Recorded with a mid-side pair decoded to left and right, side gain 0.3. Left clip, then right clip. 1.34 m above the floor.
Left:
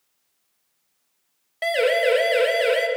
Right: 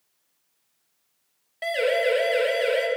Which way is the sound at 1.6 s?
50° left.